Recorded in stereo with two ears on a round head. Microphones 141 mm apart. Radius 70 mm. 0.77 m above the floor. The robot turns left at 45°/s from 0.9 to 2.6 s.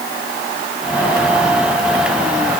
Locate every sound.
Only background noise.